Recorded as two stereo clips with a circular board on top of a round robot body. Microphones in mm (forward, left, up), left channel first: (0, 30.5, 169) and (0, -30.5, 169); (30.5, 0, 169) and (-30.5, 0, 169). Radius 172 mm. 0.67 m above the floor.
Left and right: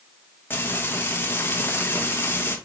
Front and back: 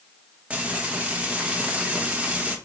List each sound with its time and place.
0.5 s frying: 120° left, 1.3 m